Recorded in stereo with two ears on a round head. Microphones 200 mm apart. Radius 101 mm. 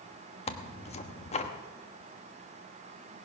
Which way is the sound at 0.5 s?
30° left (ahead or behind).